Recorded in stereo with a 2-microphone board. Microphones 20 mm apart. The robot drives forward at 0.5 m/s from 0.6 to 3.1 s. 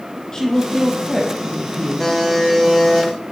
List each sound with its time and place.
0.3 s a woman speaking: 30° left (ahead or behind), 3.5 m; by 2.3 s 25° left (ahead or behind), 4.5 m
2.0 s a buzzer: 20° left (ahead or behind), 5 m